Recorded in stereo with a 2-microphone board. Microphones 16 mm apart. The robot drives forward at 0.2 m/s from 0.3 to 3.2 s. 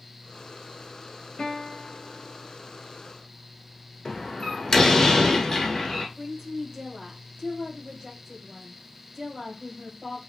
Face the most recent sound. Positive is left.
turn(degrees=-35)  # may be behind; listen again after turning